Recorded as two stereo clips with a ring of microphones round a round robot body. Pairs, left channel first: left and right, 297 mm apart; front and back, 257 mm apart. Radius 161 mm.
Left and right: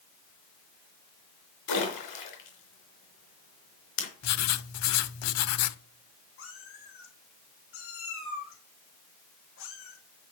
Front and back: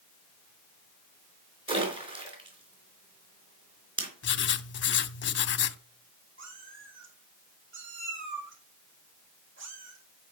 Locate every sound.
1.7 s a splash: 110° left, 4 m
4.2 s writing: 50° left, 0.8 m
6.4 s a cat meowing: 140° left, 3.5 m